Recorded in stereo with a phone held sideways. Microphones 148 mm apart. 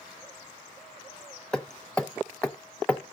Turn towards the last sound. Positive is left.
turn(degrees=5)  # may be behind; listen again after turning